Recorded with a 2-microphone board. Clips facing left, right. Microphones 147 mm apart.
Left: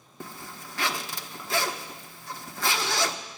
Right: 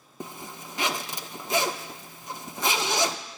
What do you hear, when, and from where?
0.2 s a zipper: 20° right (ahead or behind), 0.8 m